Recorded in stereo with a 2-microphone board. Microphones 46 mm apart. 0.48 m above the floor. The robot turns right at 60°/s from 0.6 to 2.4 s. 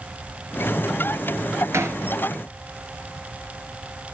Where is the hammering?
80° right, 3 m; by 2.0 s 85° right, 3 m.